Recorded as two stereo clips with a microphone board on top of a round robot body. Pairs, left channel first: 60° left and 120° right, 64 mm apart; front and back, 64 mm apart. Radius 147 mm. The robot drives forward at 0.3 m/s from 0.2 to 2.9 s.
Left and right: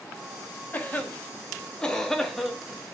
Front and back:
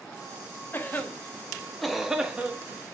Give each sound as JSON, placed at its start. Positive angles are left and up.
{"t": 0.7, "sound": "a cough", "azimuth_deg": 20, "distance_m": 0.7}